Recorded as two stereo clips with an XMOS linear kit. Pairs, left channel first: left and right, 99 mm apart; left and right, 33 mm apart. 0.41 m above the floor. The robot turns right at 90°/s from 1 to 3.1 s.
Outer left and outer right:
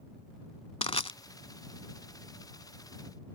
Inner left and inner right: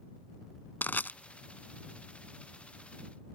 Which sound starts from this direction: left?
Crushing, at 0.8 s.